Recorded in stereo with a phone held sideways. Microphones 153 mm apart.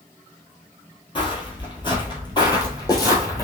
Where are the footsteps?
30° left (ahead or behind), 1.5 m; by 3.5 s 20° left (ahead or behind), 1.6 m.